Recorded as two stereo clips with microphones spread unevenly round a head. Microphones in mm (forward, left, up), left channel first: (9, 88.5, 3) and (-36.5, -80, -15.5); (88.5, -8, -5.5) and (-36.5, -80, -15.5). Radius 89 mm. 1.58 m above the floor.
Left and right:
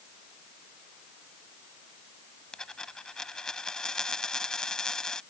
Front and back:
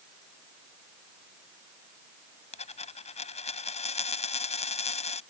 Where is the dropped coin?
10° right.